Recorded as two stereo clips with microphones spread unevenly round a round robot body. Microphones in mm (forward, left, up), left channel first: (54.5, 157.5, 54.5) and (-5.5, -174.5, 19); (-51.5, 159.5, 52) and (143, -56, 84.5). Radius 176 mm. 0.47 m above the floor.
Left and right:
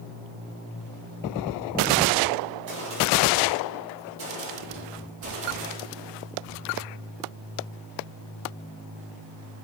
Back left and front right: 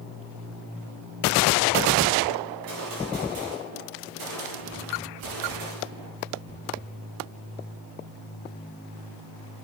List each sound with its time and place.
2.5 s a gunshot: 50° right, 6.5 m